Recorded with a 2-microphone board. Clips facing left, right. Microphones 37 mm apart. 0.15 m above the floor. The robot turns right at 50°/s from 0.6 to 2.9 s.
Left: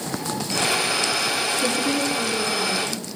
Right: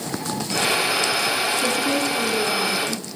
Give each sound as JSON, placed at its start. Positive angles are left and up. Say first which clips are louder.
{"t": 1.6, "sound": "a woman speaking", "louder": "right 1 dB", "azimuth_deg": 160, "distance_m": 3.0}